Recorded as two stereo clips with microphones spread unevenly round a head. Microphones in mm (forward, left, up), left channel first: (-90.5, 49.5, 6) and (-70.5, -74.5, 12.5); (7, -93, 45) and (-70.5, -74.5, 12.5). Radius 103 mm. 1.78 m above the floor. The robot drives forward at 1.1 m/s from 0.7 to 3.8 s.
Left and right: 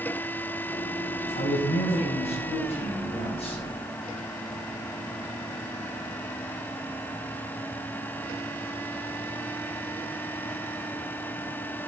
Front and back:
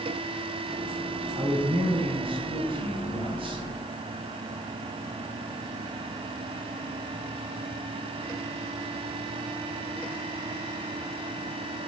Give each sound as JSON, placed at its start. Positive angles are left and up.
{"t": 1.3, "sound": "a man speaking", "azimuth_deg": 120, "distance_m": 8.5}